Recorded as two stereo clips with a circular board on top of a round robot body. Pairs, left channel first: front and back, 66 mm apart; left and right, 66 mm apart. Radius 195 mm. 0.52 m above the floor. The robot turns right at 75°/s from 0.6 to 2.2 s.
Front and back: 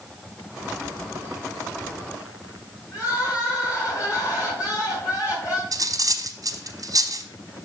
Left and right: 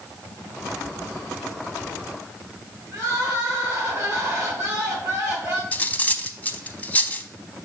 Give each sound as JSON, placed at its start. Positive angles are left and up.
{"t": 2.9, "sound": "crying", "azimuth_deg": -45, "distance_m": 3.5}
{"t": 5.7, "sound": "cutlery clinking", "azimuth_deg": 155, "distance_m": 0.8}